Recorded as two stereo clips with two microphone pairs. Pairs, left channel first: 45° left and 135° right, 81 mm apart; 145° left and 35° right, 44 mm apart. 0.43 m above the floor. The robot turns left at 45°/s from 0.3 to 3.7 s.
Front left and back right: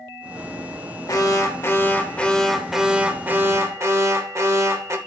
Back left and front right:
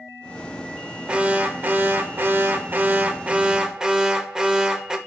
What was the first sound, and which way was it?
An alarm, 20° left.